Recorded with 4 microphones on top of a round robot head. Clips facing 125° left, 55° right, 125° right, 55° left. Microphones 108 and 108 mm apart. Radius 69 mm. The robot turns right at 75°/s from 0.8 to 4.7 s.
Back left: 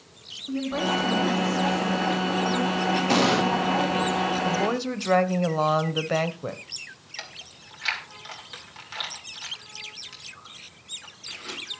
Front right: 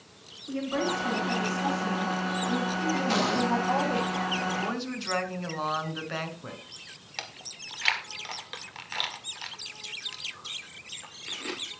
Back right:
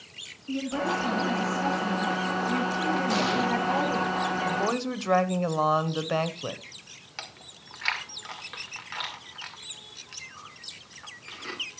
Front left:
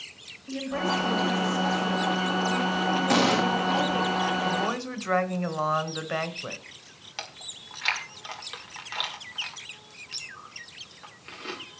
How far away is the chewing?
About 1.7 m.